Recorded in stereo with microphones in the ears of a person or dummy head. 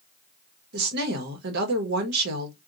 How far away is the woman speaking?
About 1.0 m.